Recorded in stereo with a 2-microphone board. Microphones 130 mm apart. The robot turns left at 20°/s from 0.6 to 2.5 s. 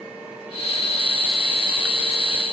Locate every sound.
Only background noise.